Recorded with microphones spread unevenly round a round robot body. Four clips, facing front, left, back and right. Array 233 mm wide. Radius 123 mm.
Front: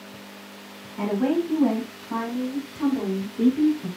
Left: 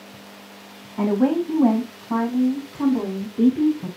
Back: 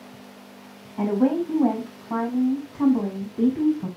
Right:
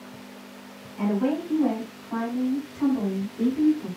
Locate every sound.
1.0 s a woman speaking: 105° left, 6 m; by 3.9 s 135° left, 6.5 m